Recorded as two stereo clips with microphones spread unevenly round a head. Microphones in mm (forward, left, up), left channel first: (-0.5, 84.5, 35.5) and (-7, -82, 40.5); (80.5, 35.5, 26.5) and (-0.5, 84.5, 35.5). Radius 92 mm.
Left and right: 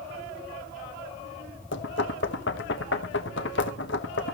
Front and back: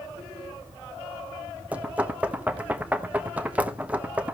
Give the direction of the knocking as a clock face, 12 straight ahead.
9 o'clock.